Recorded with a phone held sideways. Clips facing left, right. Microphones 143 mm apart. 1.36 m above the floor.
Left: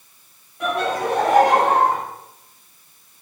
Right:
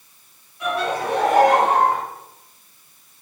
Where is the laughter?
50° left (ahead or behind), 2 m; by 2.0 s 25° left (ahead or behind), 1.9 m.